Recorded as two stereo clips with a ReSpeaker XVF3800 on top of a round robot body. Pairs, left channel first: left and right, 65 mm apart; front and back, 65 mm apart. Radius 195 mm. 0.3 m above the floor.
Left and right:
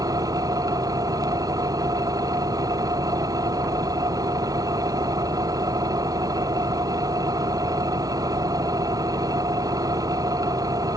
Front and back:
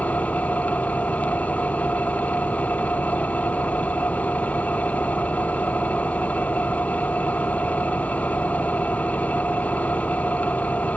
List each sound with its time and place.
0.0 s an engine running: 65° right